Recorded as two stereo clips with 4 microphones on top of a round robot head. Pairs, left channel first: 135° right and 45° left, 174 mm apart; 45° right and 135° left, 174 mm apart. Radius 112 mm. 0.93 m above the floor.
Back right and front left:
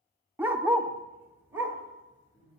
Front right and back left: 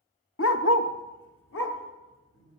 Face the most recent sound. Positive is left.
turn(degrees=-35)